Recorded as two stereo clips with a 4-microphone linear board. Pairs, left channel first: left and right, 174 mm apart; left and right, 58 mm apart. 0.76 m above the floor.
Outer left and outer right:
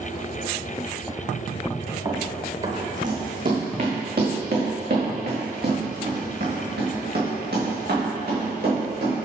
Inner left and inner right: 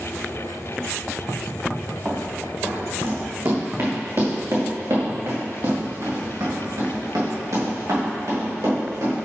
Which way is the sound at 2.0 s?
30° right (ahead or behind).